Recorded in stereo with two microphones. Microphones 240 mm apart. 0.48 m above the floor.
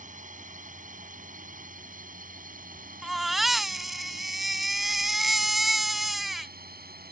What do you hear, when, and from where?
0.0 s a drone: 30° right (ahead or behind); by 7.1 s 40° right (ahead or behind)
3.0 s a baby crying: centre (ahead or behind)